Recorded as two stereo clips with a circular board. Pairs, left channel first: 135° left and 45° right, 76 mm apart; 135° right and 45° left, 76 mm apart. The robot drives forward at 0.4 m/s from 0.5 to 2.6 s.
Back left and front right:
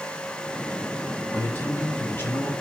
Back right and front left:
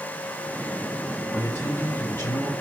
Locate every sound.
1.3 s a man speaking: 175° right, 1.7 m